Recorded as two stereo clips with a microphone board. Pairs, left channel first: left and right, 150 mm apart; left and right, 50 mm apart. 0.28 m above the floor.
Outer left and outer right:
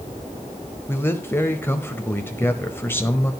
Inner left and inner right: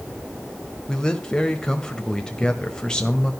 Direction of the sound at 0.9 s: 15° left (ahead or behind).